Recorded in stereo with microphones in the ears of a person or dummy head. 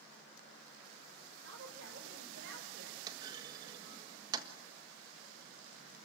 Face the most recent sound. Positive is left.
turn(degrees=-30)  # may be behind; listen again after turning